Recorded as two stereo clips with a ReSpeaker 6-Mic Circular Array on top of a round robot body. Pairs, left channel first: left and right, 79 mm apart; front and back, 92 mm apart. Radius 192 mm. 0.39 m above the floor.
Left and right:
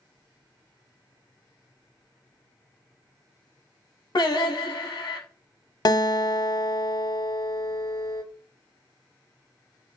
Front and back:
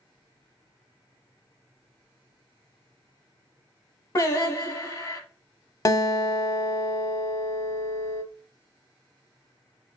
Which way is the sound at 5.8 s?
50° left.